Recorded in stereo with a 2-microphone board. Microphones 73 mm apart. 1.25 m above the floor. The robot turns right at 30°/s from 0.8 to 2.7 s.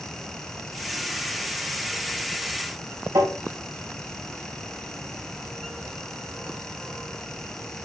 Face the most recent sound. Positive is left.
turn(degrees=-70)  # may be behind; listen again after turning